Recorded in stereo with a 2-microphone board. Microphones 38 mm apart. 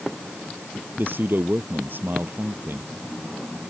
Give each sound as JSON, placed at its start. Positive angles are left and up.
{"t": 1.0, "sound": "a man speaking", "side_deg": -60}